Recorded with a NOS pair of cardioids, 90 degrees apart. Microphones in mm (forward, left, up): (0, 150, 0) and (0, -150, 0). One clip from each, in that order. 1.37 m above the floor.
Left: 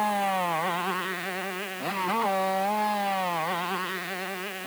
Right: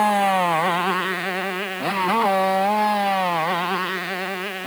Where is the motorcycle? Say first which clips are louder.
Right 8 dB; 55° right; by 4.7 s 45° right.